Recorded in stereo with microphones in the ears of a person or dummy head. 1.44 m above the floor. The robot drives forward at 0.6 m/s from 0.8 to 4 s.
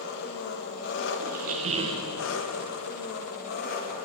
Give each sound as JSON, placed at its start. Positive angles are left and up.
{"t": 0.0, "sound": "an engine running", "side_deg": 65, "distance_m": 1.4}
{"t": 1.2, "sound": "a squeak", "side_deg": -50, "distance_m": 0.7}